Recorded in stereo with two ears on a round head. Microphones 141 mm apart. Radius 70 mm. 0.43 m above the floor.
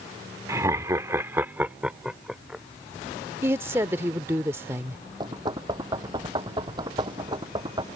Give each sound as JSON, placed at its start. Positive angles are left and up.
{"t": 0.5, "sound": "laughter", "side_deg": -20}
{"t": 3.4, "sound": "a woman speaking", "side_deg": -15}
{"t": 5.2, "sound": "knocking", "side_deg": -25}